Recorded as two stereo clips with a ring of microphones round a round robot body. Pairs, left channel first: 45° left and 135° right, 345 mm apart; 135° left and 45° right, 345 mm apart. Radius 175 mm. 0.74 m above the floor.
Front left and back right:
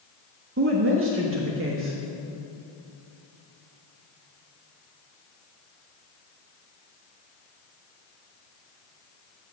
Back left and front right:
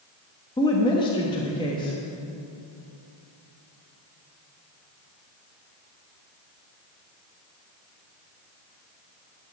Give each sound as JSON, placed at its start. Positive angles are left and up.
{"t": 0.6, "sound": "a woman speaking", "azimuth_deg": -155, "distance_m": 1.3}